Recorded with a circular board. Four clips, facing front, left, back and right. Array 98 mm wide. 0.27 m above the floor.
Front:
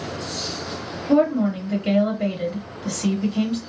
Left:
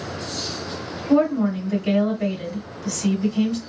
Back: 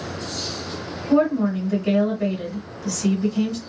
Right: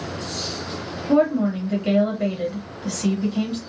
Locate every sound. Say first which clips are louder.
1.1 s a woman speaking: even, even; 40° right, 1.3 m